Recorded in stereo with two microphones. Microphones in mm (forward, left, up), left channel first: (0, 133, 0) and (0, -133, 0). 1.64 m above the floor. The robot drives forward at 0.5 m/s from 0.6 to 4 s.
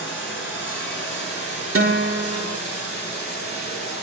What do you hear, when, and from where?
0.0 s running water: 45° left (ahead or behind), 8.5 m; by 4.0 s 40° left (ahead or behind), 10 m
1.8 s a guitar: 55° right (ahead or behind), 1.8 m; by 2.6 s 50° right (ahead or behind), 1.9 m